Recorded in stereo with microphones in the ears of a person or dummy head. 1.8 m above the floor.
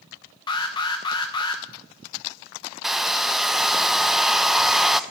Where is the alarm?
20° left (ahead or behind), 1.1 m.